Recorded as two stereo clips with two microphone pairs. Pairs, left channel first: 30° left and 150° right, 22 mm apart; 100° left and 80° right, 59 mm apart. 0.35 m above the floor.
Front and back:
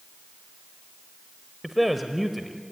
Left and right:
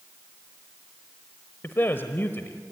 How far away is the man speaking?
About 1.1 m.